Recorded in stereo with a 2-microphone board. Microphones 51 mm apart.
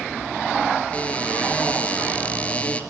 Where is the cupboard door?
30° left (ahead or behind), 2.5 m.